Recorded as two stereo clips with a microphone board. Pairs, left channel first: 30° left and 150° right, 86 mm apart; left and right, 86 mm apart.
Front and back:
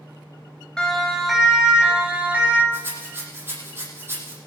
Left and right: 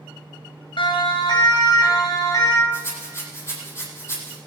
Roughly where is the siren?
Left.